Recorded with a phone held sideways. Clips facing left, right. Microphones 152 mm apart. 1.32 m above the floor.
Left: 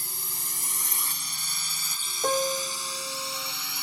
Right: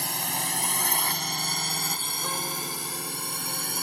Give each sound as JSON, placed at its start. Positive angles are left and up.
{"t": 0.0, "sound": "a drone", "side_deg": -75}
{"t": 2.2, "sound": "a piano", "side_deg": 60}